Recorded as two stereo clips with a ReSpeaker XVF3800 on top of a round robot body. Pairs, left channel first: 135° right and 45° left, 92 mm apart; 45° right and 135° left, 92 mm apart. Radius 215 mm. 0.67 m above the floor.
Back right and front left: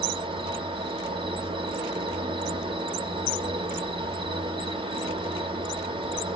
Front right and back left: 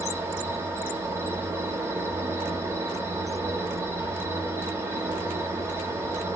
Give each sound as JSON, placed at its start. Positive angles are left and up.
{"t": 0.0, "sound": "an insect", "azimuth_deg": 70, "distance_m": 1.7}